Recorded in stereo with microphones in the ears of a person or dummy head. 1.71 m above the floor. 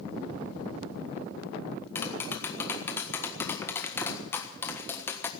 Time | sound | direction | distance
1.9 | tapping | 10° left (ahead or behind) | 1.3 m